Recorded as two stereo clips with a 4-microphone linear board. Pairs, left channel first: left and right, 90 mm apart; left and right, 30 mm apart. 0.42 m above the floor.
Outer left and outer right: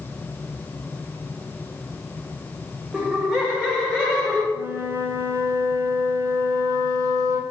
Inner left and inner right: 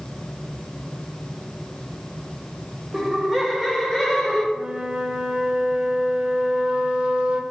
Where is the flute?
40° right (ahead or behind), 0.5 m.